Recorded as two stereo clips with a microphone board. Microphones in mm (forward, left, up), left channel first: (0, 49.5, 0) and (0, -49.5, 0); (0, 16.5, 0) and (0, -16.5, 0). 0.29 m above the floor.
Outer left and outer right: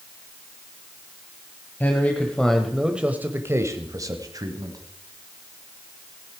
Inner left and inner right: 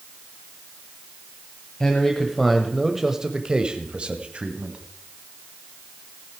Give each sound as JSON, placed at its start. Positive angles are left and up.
{"t": 1.8, "sound": "a man speaking", "side_deg": 15, "distance_m": 1.4}